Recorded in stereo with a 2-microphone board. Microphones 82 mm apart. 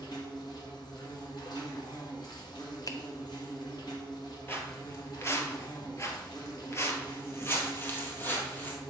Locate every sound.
0.0 s an insect: 55° left (ahead or behind), 1.7 m
2.9 s a finger snap: 45° left (ahead or behind), 0.6 m
4.5 s footsteps: 25° left (ahead or behind), 1.3 m; by 8.8 s 20° left (ahead or behind), 1.8 m